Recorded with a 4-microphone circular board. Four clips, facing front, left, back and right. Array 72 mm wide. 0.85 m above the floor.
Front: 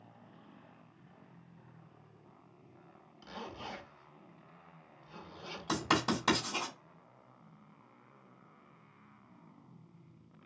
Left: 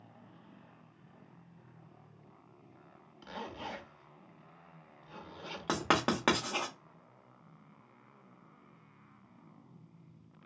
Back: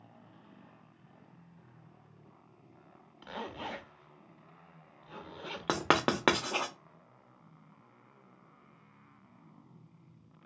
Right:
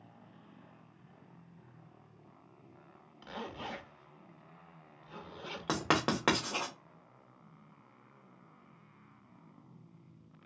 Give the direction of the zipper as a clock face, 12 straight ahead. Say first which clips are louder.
Even, back 4 dB; 6 o'clock.